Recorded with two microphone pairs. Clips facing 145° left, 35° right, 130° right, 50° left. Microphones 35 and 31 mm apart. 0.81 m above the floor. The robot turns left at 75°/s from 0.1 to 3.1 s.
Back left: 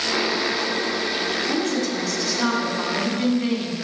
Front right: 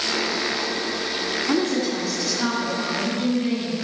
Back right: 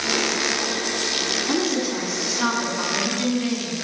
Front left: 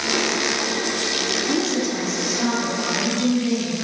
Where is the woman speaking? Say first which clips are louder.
Front right 1 dB, front left 1 dB; 60° right, 2.5 m; by 3.7 s 175° left, 2.5 m.